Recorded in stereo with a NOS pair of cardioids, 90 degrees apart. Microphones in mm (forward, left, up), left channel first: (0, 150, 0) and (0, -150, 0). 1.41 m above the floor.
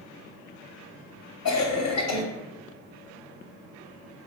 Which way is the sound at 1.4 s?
55° left.